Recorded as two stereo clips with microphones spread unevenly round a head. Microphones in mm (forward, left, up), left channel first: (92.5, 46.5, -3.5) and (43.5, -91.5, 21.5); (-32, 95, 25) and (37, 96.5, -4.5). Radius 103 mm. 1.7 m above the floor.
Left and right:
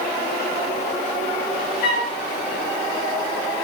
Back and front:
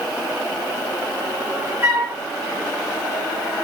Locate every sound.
1.8 s a flute: 60° left, 6 m